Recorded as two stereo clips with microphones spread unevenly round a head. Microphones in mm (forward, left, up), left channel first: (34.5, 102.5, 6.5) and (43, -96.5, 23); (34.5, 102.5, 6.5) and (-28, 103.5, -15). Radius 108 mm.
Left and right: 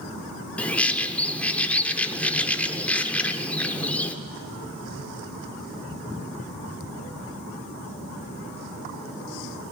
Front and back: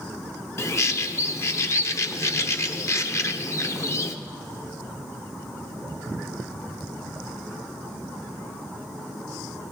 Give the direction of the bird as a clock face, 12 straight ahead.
12 o'clock.